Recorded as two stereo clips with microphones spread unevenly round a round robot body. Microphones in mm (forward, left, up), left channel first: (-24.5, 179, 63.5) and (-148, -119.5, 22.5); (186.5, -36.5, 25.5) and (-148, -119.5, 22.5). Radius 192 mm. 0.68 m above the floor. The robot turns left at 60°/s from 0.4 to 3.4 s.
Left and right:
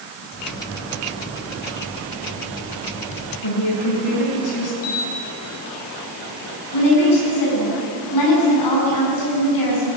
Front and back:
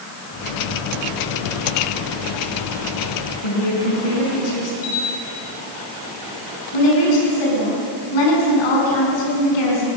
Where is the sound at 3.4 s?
35° left, 7 m.